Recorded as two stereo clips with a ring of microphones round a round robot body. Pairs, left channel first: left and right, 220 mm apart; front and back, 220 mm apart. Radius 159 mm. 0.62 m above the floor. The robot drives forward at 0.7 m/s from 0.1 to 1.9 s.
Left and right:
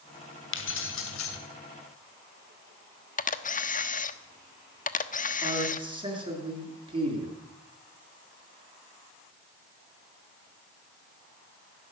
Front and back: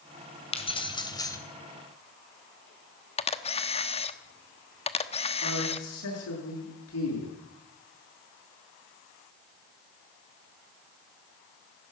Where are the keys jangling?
65° left, 2.5 m; by 1.4 s 75° left, 2.5 m.